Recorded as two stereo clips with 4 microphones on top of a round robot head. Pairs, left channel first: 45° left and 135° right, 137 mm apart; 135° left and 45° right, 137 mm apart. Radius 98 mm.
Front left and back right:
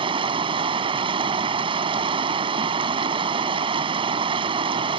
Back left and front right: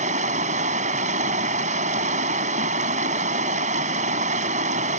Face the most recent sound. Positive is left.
turn(degrees=-80)